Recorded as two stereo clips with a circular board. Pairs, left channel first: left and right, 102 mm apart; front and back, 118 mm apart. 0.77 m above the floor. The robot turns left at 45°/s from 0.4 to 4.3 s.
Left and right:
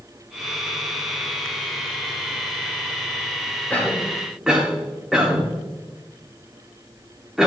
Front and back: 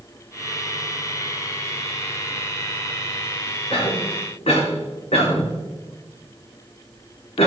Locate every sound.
3.7 s a cough: 20° left, 2.5 m; by 7.5 s 5° right, 2.5 m